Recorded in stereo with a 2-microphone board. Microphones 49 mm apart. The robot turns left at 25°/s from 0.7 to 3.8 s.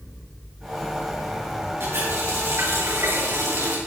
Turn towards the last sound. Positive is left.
turn(degrees=-100)